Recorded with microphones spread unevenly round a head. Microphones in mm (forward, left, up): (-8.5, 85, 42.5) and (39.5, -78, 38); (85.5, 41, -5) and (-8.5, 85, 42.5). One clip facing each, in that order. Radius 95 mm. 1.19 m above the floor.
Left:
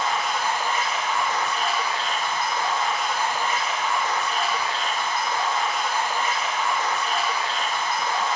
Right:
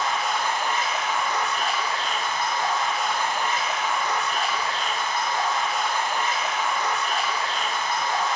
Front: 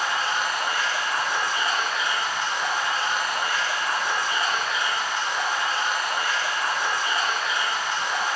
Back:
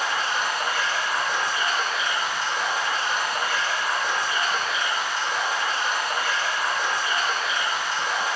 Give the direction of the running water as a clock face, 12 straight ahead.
6 o'clock.